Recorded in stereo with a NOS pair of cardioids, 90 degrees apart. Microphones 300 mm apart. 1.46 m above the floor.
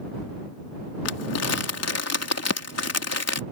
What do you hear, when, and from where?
1.1 s crumpling: 55° left